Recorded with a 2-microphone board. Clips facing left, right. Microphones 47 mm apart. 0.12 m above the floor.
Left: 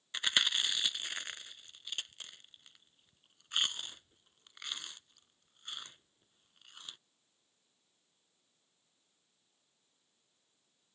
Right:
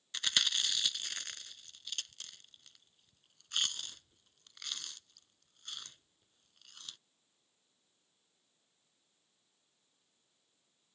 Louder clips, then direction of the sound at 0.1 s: Left 2 dB; 20° left (ahead or behind).